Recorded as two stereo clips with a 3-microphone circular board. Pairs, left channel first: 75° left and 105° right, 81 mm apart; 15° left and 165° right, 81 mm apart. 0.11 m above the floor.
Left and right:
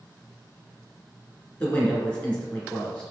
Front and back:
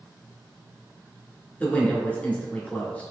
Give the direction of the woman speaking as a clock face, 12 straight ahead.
11 o'clock.